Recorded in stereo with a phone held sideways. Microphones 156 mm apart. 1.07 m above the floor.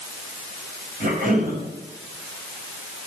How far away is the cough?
About 6.5 m.